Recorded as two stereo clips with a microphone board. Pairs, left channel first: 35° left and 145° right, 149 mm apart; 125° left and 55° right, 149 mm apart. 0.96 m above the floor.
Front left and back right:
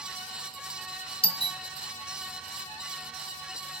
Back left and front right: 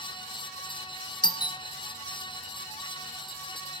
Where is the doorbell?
75° left, 0.9 m.